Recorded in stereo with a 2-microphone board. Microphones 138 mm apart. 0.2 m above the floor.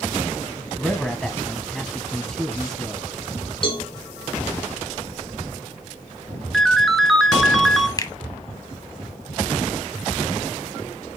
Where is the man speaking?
5° left (ahead or behind), 1.1 m.